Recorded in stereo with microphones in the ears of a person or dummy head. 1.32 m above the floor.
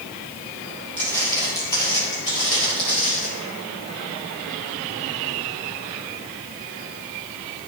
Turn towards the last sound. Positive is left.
turn(degrees=35)  # may be behind; listen again after turning